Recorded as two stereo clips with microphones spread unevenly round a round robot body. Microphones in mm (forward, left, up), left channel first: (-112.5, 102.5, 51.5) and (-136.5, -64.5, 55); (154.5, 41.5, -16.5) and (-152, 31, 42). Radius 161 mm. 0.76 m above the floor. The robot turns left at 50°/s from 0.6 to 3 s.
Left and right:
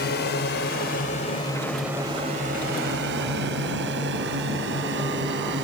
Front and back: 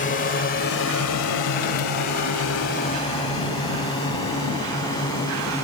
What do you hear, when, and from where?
0.0 s a drone: 60° left; by 5.6 s 80° right